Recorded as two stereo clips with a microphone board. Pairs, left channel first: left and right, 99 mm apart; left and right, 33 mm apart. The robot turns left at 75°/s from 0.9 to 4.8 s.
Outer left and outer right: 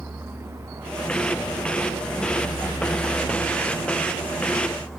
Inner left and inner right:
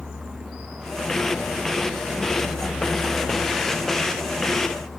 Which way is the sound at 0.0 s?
25° right (ahead or behind).